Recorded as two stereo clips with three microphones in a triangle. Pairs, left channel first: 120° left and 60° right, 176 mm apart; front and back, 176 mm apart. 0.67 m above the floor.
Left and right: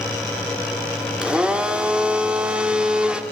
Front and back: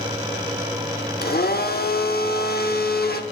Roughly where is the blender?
Ahead left.